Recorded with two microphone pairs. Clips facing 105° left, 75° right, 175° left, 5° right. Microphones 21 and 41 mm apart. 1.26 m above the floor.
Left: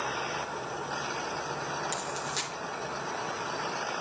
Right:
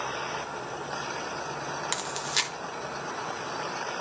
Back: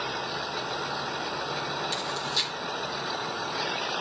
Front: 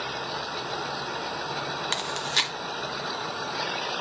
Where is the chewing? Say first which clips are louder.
Right 4 dB, front 2 dB; 25° right, 0.9 m.